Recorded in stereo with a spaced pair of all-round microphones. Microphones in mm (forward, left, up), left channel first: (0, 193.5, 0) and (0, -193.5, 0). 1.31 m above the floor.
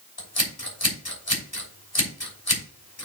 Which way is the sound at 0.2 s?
65° left (ahead or behind).